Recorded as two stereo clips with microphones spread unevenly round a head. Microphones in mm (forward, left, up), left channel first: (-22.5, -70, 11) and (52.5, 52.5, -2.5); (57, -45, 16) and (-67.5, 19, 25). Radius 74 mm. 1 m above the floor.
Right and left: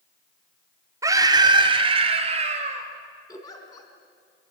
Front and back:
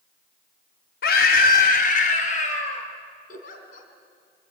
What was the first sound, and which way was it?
A scream, 10° right.